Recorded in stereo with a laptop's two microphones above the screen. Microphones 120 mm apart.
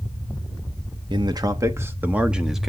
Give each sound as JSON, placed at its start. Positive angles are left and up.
{"t": 1.1, "sound": "a man speaking", "side_deg": -40, "distance_m": 1.2}